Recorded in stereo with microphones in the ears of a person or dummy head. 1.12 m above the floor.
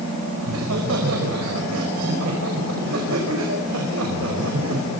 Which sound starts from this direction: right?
Laughter, at 0.4 s.